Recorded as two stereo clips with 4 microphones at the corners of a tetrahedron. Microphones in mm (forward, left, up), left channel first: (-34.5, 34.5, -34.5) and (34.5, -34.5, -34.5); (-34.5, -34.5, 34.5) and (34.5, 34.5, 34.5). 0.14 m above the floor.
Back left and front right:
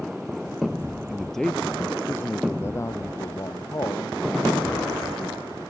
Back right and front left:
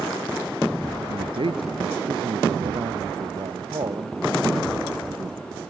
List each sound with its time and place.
1.1 s a man speaking: 40° left; by 5.5 s 85° left